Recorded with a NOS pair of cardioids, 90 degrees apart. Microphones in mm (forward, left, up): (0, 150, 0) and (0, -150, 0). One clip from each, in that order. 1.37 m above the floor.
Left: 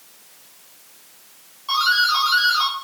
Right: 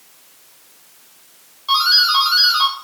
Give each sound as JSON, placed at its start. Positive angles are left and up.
{"t": 1.7, "sound": "a doorbell", "azimuth_deg": -30, "distance_m": 8.0}